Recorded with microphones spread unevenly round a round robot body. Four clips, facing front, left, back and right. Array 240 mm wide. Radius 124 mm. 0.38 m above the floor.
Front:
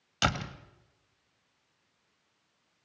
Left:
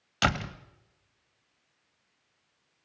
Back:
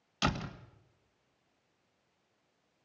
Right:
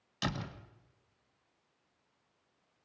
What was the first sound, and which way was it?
A door slam, 60° left.